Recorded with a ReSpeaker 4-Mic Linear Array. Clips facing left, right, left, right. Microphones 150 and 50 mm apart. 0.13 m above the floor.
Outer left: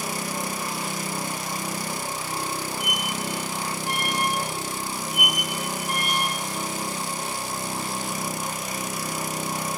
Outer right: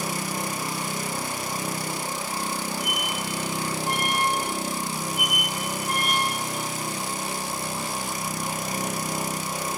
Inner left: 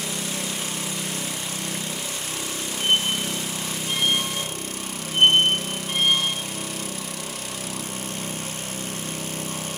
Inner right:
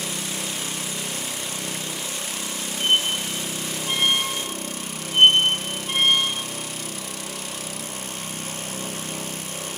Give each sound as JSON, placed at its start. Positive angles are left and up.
{"t": 2.8, "sound": "a squeak", "side_deg": -35, "distance_m": 6.0}